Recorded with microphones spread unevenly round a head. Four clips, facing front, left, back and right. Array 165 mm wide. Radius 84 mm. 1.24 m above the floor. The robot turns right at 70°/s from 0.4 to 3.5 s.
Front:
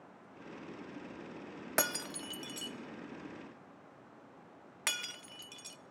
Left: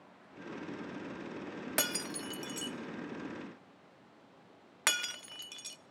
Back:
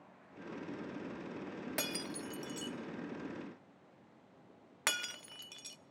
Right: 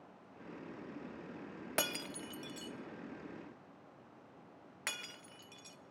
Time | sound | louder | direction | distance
1.8 | breaking glass | left 1 dB, front 8 dB | 5° left | 0.8 m